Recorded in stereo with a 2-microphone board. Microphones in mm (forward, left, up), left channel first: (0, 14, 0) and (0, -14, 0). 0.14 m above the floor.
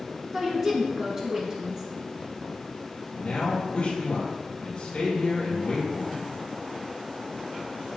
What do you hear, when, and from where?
0.3 s a woman speaking: 20° right (ahead or behind), 1.2 m
3.1 s a man speaking: 35° left (ahead or behind), 2 m